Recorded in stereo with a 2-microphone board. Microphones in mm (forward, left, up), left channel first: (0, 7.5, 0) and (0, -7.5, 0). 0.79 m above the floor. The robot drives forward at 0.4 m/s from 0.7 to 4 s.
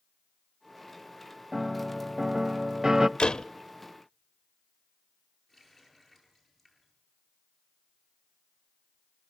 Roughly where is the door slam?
Left.